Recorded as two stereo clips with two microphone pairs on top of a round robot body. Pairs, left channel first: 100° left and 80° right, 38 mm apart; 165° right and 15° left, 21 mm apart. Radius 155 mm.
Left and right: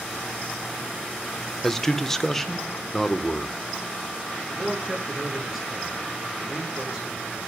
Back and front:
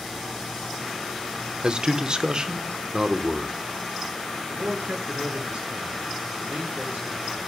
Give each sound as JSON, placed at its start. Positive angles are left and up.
{"t": 1.6, "sound": "a man speaking", "azimuth_deg": 50, "distance_m": 1.8}
{"t": 4.5, "sound": "a man speaking", "azimuth_deg": 5, "distance_m": 7.0}